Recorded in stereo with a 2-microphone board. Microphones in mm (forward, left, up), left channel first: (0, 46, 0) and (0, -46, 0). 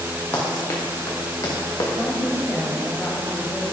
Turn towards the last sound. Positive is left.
turn(degrees=5)  # may be behind; listen again after turning